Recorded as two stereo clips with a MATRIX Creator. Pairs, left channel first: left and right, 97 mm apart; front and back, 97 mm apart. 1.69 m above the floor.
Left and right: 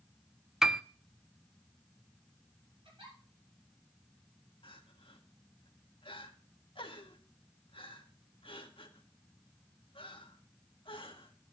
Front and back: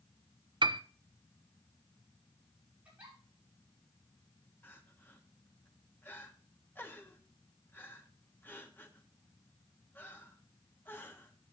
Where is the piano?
175° right, 0.5 m.